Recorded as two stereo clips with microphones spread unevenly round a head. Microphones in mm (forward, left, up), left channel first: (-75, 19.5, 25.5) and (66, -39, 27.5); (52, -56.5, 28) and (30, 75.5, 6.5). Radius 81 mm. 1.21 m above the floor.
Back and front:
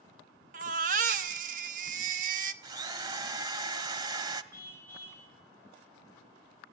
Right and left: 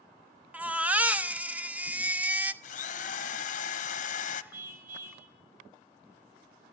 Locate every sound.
0.5 s a baby crying: 20° left, 1.0 m
2.6 s a drill: 90° right, 1.1 m
4.5 s a car horn: 80° left, 3 m